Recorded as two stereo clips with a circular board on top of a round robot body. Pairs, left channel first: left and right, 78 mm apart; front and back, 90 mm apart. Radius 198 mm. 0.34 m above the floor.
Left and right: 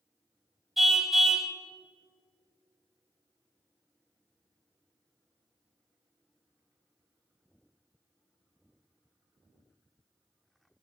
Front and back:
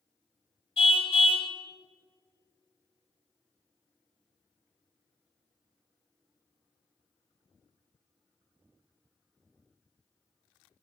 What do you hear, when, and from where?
0.8 s a car horn: straight ahead, 2 m